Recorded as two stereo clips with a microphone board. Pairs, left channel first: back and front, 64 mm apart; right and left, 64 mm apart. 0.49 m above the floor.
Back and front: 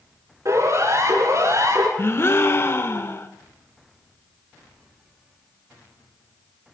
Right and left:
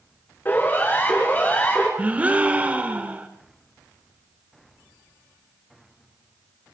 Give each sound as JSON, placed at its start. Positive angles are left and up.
{"t": 0.5, "sound": "a siren", "azimuth_deg": -30, "distance_m": 8.0}
{"t": 2.0, "sound": "a gasp", "azimuth_deg": 150, "distance_m": 1.6}